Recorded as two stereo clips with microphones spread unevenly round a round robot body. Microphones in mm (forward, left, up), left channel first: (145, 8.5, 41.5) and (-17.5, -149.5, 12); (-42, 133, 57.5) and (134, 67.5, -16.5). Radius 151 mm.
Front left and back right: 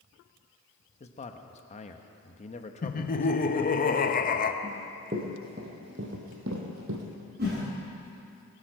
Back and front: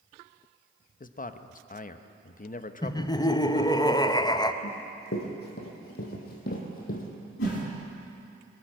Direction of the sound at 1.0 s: 105° left.